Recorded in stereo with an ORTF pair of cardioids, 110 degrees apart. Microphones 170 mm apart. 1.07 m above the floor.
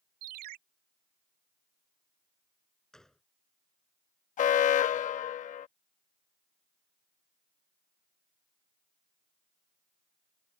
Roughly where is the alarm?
Ahead left.